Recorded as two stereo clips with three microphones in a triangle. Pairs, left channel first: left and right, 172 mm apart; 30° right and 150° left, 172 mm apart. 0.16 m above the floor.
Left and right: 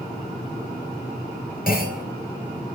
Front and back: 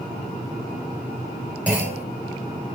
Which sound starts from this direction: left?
A clunk, at 1.7 s.